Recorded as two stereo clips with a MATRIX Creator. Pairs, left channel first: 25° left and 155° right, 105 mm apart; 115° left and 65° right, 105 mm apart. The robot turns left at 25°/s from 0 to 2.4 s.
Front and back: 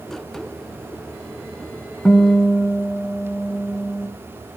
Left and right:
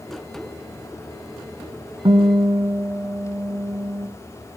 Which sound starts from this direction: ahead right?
A guitar, at 2.0 s.